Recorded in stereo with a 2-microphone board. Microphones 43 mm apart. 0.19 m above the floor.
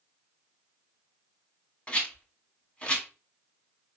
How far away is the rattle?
About 1.3 m.